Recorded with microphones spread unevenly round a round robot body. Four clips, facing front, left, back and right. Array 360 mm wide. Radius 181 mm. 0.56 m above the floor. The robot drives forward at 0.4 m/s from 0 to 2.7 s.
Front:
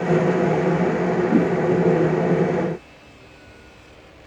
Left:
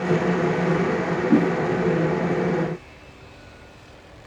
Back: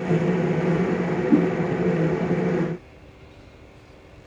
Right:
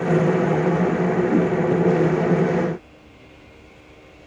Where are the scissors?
I don't hear scissors.